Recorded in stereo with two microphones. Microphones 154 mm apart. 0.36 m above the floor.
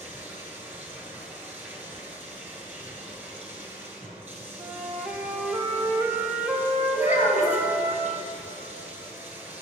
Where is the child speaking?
60° left (ahead or behind), 2 m.